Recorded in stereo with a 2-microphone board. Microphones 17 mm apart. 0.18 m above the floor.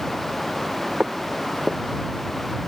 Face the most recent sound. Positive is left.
turn(degrees=-90)